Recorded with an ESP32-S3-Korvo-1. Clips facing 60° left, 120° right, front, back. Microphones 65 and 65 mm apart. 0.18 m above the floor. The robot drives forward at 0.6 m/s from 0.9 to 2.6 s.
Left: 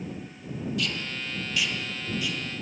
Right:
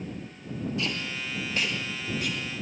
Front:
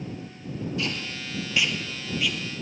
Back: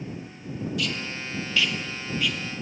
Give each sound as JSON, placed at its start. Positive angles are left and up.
{"t": 0.8, "sound": "tape being pulled", "azimuth_deg": -60, "distance_m": 1.8}